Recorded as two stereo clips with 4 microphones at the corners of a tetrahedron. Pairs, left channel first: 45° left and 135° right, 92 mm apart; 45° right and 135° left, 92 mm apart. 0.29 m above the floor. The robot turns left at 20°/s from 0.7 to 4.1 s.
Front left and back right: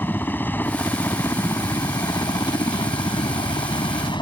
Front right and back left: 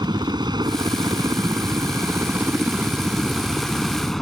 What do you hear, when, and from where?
0.0 s a helicopter: 110° left; by 4.2 s 40° left